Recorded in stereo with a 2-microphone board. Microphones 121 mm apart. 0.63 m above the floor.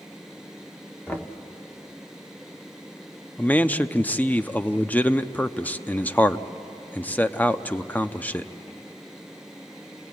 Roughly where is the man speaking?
Centre.